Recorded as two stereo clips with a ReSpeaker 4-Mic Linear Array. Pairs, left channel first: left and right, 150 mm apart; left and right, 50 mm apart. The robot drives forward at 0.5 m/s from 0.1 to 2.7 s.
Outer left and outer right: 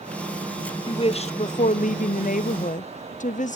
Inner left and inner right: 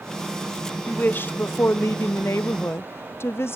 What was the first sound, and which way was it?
A woman speaking, 35° left (ahead or behind).